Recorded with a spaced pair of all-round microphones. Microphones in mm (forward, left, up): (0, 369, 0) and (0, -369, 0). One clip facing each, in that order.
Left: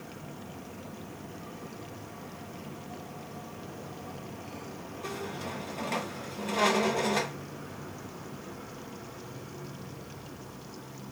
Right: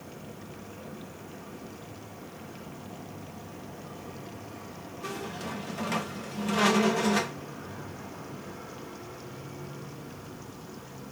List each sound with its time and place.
5.0 s a squeak: 45° right (ahead or behind), 1.0 m